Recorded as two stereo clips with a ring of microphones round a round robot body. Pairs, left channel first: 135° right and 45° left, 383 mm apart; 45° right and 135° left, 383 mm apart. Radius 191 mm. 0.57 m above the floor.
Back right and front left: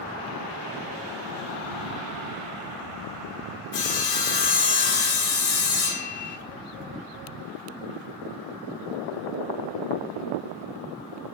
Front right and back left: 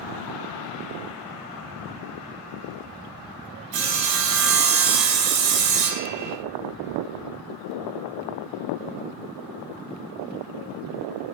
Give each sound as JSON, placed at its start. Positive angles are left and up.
{"t": 3.7, "sound": "sawing", "azimuth_deg": 160, "distance_m": 0.6}